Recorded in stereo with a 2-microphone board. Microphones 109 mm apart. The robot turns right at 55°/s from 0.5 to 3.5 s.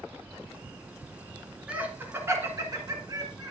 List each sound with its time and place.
1.7 s laughter: 10° right (ahead or behind), 1.6 m; by 3.5 s 30° right (ahead or behind), 1.6 m